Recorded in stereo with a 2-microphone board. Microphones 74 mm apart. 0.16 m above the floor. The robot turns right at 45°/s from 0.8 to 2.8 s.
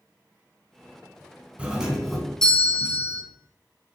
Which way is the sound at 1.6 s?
25° right.